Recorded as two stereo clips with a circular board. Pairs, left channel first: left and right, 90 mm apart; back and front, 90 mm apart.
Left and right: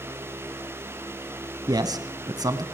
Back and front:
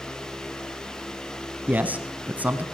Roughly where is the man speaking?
Ahead right.